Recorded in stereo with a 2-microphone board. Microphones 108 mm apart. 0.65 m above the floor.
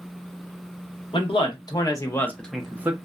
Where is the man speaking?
55° left (ahead or behind), 0.9 m; by 2.9 s 20° right (ahead or behind), 0.6 m.